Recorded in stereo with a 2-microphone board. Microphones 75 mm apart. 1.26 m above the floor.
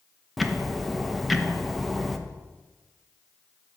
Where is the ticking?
Centre (ahead or behind), 0.7 m.